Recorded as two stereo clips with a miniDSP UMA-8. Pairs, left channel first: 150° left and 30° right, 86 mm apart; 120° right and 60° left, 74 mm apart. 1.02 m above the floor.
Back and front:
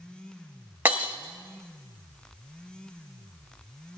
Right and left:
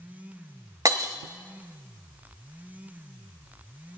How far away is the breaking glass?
About 1.4 m.